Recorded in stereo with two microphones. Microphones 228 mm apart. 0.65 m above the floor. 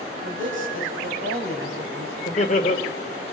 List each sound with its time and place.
0.2 s a man speaking: 60° right (ahead or behind), 5 m; by 2.1 s 70° right (ahead or behind), 4 m
2.2 s laughter: 35° left (ahead or behind), 1.9 m